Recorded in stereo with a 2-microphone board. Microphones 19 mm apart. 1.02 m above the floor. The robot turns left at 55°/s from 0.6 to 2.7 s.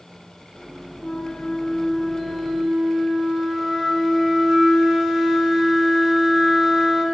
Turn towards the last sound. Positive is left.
turn(degrees=-40)